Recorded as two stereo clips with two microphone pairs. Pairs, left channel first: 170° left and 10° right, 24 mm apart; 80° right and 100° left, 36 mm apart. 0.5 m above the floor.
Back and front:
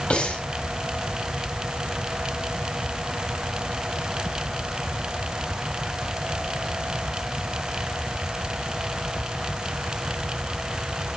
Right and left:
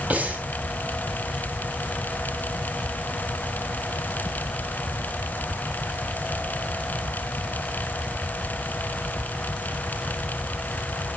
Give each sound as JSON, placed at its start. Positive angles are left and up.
{"t": 0.1, "sound": "breathing", "azimuth_deg": 145, "distance_m": 2.5}